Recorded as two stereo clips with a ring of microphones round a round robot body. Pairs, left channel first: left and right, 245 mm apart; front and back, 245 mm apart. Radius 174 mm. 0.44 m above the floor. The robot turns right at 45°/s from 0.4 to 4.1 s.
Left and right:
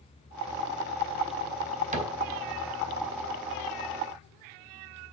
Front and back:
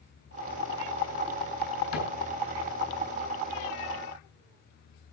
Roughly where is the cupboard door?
Ahead right.